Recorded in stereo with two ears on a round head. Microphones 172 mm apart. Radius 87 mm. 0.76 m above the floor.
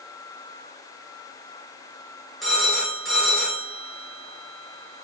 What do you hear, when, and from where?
2.4 s a phone ringing: centre (ahead or behind), 3 m